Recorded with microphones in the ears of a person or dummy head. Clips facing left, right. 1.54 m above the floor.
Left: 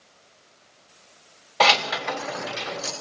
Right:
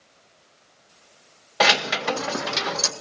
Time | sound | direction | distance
1.6 | keys jangling | 5° right (ahead or behind) | 0.9 m